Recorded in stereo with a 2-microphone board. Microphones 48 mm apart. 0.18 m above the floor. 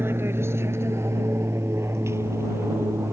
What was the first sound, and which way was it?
An aircraft, 55° right (ahead or behind).